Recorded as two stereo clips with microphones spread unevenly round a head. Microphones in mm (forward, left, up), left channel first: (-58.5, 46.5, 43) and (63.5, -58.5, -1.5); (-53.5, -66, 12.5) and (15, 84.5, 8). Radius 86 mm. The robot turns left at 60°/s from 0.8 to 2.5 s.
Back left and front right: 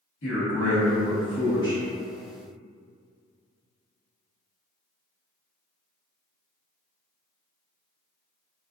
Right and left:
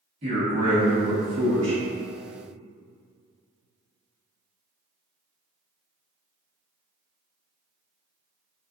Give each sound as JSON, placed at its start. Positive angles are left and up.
{"t": 0.2, "sound": "a man speaking", "azimuth_deg": 120, "distance_m": 1.3}